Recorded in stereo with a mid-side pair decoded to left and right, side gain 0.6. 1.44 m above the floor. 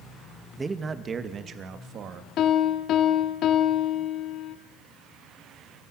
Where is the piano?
55° left, 2.5 m.